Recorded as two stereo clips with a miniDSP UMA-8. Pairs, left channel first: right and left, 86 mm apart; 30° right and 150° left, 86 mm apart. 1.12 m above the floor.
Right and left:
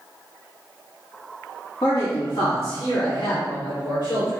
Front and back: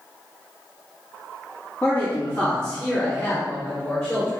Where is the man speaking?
90° right, 2 m; by 4.4 s 110° right, 5 m.